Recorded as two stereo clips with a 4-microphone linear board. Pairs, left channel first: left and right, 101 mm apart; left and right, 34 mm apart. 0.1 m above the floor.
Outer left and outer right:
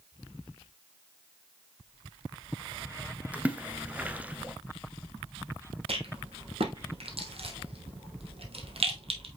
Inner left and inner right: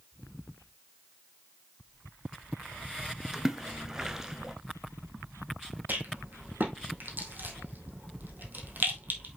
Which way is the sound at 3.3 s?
15° right (ahead or behind).